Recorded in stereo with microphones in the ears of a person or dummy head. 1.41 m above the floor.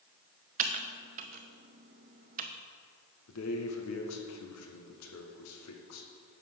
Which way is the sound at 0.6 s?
45° right (ahead or behind).